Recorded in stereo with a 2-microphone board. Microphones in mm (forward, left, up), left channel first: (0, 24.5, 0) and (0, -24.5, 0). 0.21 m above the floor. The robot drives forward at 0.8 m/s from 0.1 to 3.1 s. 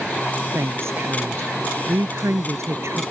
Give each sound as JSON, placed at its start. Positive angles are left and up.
{"t": 0.5, "sound": "a woman speaking", "side_deg": -60}